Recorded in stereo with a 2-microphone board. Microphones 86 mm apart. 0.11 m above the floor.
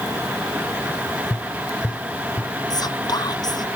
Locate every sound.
1.3 s tapping: 30° left (ahead or behind)
2.7 s whispering: 50° left (ahead or behind)